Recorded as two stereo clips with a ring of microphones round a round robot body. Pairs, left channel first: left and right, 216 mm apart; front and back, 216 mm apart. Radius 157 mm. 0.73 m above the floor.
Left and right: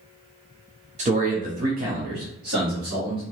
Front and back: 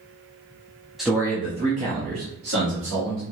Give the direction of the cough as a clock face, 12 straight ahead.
No cough in this recording.